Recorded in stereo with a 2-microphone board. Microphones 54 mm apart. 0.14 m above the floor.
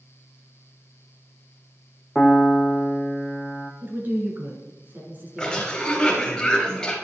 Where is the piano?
10° left (ahead or behind), 0.8 m.